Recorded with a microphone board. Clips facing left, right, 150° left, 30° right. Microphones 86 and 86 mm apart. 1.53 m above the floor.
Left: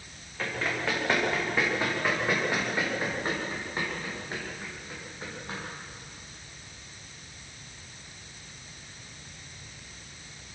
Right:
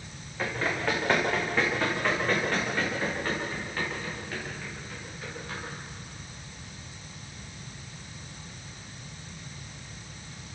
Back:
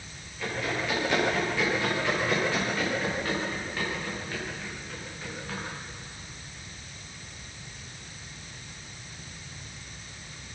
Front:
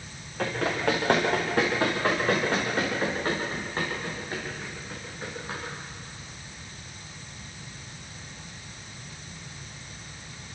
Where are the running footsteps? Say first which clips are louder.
Right 2 dB, front 4 dB; 5° right, 7.5 m; by 5.6 s 35° left, 12.5 m.